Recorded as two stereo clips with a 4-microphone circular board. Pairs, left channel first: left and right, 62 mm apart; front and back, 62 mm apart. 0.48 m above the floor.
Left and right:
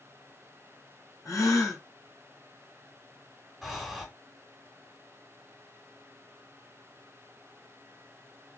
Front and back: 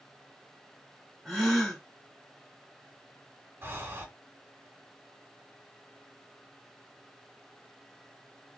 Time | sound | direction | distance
1.2 | a gasp | 90° left | 2 m
3.6 | breathing | straight behind | 0.9 m